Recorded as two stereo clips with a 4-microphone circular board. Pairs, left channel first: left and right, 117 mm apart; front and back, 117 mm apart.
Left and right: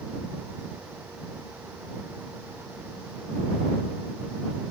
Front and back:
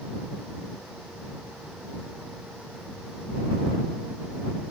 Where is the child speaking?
I don't hear a child speaking.